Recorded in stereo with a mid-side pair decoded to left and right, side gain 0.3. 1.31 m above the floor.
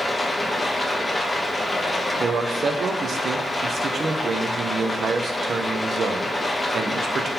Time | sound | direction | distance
0.0 | running water | 30° left | 1.1 m
2.2 | a man speaking | 65° right | 0.5 m